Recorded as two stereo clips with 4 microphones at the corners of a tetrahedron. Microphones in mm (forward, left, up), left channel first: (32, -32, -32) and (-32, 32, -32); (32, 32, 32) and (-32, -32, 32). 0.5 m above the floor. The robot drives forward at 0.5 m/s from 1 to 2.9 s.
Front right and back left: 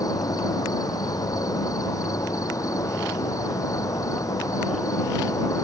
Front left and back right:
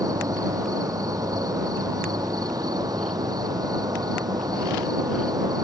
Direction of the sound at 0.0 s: 90° right.